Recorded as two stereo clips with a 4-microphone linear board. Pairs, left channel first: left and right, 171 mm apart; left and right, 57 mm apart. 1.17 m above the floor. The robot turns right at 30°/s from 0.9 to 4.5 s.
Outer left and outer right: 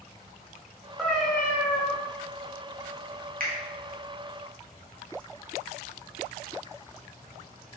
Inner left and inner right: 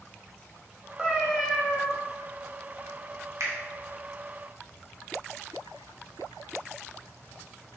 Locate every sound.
1.0 s a cat meowing: centre (ahead or behind), 0.6 m; by 1.9 s 20° left (ahead or behind), 0.6 m
3.4 s a finger snap: 65° right (ahead or behind), 0.6 m; by 3.5 s 70° right (ahead or behind), 0.6 m